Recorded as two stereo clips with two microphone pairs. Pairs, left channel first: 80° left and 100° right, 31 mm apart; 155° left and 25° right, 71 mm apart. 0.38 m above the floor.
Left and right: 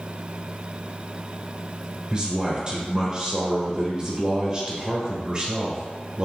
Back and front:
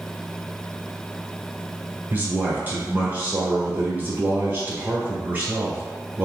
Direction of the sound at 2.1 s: 60° right.